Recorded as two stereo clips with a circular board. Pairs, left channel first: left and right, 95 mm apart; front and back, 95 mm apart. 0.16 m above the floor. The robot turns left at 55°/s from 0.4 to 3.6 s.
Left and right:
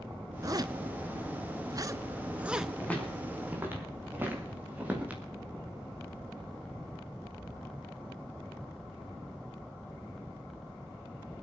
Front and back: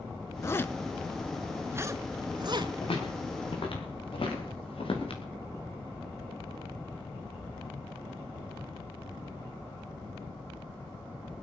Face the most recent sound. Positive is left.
turn(degrees=-15)